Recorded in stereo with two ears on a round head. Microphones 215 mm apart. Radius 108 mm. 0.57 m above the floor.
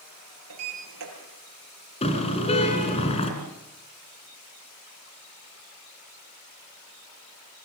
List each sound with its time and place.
0.5 s a sliding door: 75° right (ahead or behind), 6.5 m
2.0 s a car horn: 25° left (ahead or behind), 3.5 m